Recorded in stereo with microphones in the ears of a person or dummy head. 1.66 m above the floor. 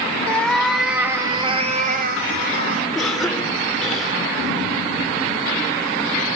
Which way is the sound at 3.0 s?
5° left (ahead or behind).